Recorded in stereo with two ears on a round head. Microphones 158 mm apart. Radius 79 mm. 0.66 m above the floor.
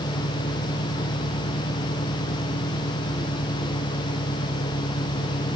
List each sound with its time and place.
0.0 s an engine running: 50° left (ahead or behind)